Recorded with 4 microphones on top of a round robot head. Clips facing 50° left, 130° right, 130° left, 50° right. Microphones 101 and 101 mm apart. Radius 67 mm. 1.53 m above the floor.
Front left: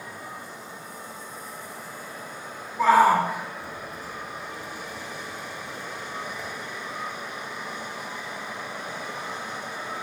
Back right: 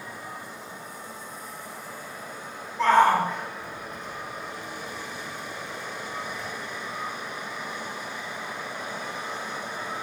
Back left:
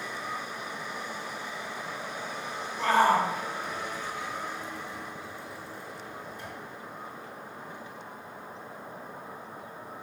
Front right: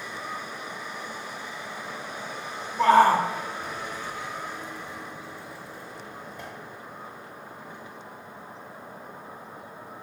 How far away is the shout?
About 2.5 m.